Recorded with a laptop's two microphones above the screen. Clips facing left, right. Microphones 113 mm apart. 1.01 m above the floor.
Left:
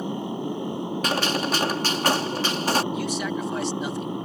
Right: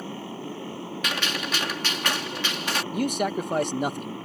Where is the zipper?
No zipper in this recording.